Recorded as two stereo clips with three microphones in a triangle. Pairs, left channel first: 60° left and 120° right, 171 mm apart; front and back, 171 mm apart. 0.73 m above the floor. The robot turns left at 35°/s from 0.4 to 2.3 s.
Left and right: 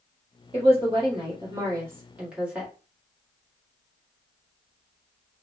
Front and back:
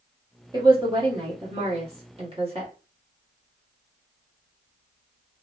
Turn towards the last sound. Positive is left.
turn(degrees=160)